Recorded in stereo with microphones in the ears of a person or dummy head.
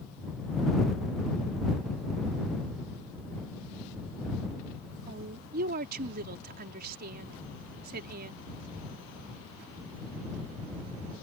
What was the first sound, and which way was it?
A woman speaking, 55° right (ahead or behind).